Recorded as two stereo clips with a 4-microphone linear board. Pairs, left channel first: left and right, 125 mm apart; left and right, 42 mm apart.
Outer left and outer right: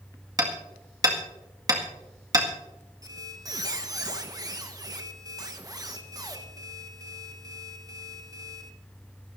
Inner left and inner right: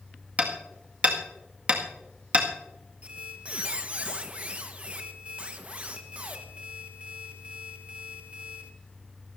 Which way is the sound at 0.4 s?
30° right (ahead or behind).